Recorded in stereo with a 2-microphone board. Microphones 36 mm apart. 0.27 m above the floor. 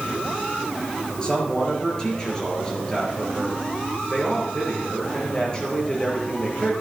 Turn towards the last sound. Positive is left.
turn(degrees=25)  # may be behind; listen again after turning